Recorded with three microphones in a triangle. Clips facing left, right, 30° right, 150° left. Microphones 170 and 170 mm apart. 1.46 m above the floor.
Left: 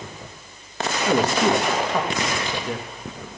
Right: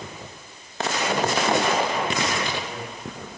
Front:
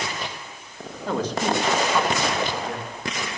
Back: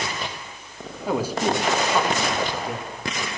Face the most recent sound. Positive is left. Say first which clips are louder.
# left 4 dB, back 1 dB
turn(degrees=70)